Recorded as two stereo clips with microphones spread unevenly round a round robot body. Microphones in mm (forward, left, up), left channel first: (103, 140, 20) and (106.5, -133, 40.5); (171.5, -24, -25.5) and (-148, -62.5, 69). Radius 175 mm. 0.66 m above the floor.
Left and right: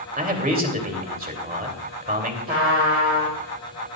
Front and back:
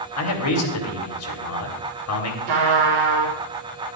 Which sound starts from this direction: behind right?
A trumpet, at 2.5 s.